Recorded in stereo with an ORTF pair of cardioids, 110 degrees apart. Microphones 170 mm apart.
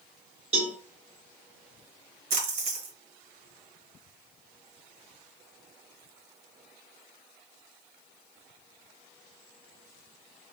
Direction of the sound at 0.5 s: 35° right.